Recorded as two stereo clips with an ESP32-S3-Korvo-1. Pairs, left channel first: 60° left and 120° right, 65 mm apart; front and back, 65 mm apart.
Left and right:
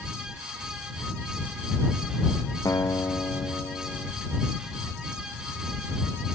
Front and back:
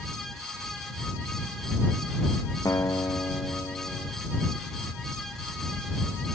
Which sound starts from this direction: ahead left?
A guitar, at 2.6 s.